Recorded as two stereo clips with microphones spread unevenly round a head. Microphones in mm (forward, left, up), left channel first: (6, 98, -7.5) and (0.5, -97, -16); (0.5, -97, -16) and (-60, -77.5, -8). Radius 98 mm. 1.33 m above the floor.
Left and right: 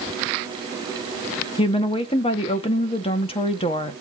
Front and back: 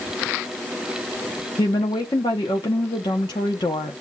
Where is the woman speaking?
25° left, 0.8 m.